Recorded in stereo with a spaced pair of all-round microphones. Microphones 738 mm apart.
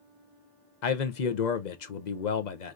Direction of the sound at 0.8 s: 70° left (ahead or behind).